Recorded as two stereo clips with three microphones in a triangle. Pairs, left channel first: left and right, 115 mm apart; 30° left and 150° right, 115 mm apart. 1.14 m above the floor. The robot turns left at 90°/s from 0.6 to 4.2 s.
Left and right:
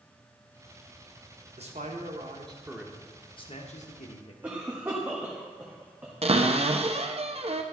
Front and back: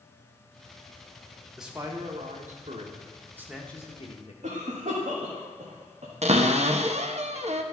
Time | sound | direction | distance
1.6 | a man speaking | 60° right | 1.3 m
4.4 | a cough | 165° right | 1.4 m
6.2 | a cupboard door | 125° right | 0.7 m